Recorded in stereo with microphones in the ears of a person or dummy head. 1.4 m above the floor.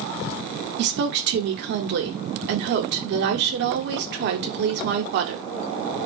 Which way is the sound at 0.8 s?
50° right (ahead or behind).